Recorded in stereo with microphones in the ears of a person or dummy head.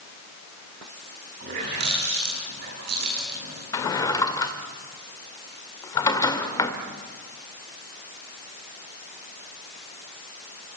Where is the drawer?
20° left (ahead or behind), 1.6 m.